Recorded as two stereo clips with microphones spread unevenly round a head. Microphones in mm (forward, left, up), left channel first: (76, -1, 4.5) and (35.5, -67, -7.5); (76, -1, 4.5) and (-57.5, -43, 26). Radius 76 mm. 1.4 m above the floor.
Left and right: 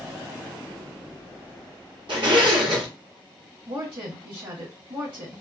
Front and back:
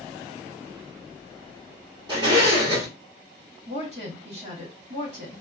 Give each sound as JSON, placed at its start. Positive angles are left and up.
{"t": 2.1, "sound": "a zipper", "azimuth_deg": -110, "distance_m": 1.6}
{"t": 3.7, "sound": "a woman speaking", "azimuth_deg": -120, "distance_m": 1.6}